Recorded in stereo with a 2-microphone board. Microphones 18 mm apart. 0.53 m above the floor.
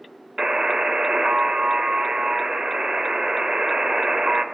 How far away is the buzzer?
About 0.6 m.